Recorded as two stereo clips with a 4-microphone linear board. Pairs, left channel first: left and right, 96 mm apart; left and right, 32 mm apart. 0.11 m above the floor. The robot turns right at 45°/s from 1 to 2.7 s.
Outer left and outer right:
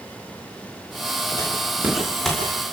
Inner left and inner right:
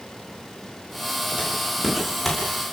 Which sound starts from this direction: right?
Footsteps, at 1.4 s.